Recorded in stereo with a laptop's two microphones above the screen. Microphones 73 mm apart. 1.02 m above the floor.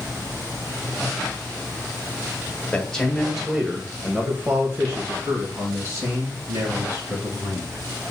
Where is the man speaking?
15° left (ahead or behind), 1.1 m; by 7.8 s 60° right (ahead or behind), 3 m.